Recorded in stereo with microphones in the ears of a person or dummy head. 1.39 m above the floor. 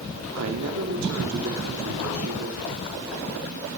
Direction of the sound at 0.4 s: 70° right (ahead or behind).